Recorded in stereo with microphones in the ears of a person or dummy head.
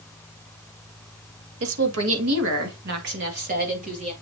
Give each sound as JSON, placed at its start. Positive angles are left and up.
{"t": 1.6, "sound": "a woman speaking", "side_deg": -85, "distance_m": 2.5}